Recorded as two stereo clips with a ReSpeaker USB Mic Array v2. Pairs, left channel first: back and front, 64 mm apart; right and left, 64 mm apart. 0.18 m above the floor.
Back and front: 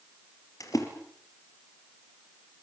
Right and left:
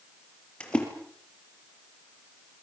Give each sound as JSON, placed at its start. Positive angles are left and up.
{"t": 0.6, "sound": "a splash", "azimuth_deg": -160, "distance_m": 5.0}